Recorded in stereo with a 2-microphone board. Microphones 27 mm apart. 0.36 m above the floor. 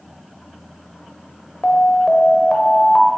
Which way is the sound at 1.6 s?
40° left (ahead or behind).